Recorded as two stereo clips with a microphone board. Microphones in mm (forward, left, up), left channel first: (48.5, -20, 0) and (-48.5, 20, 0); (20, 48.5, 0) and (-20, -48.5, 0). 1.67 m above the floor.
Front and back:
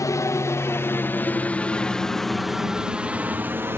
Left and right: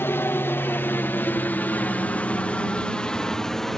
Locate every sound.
0.0 s a helicopter: 10° left; by 3.8 s 150° left